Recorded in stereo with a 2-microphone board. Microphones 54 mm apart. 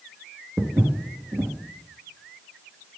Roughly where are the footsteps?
Right.